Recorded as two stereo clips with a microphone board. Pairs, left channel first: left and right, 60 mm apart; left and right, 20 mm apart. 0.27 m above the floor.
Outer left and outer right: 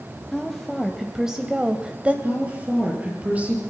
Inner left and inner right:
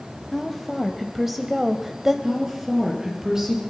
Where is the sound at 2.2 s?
25° right (ahead or behind), 5.5 m.